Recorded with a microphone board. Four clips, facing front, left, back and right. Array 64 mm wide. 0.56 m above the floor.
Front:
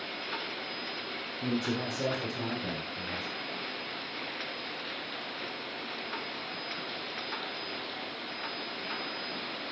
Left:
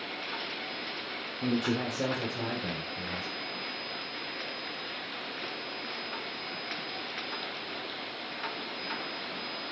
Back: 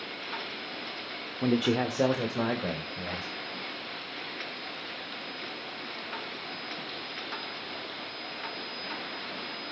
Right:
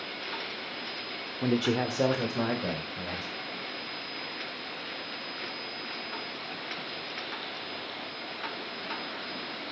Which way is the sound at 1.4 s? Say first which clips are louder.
Right 3 dB, back 6 dB; 155° right.